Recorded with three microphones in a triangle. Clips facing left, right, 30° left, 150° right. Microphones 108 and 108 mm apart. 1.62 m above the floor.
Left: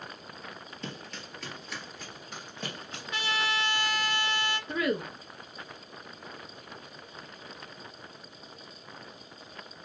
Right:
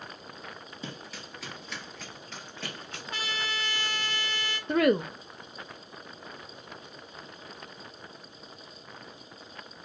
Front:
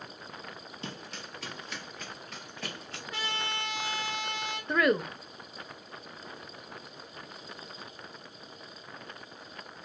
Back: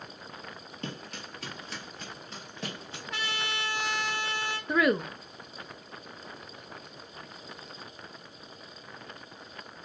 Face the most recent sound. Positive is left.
turn(degrees=-65)